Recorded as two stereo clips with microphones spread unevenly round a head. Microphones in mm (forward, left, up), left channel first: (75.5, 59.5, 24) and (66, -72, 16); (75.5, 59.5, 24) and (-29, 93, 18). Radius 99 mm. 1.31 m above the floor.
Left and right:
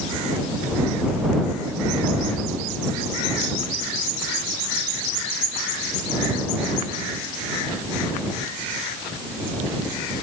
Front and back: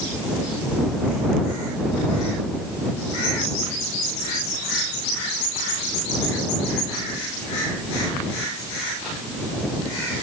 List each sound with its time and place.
Only background noise.